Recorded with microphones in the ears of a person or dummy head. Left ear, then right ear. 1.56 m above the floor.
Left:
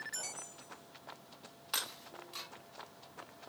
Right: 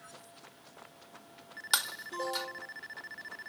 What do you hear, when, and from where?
1.7 s breaking glass: 55° right (ahead or behind), 1.9 m